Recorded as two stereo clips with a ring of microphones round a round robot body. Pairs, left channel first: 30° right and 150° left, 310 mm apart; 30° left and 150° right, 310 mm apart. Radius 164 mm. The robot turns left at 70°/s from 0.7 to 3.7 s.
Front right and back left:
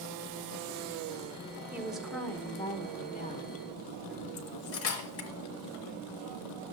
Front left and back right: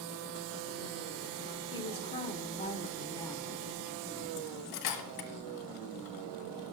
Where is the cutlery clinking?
15° left, 1.5 m.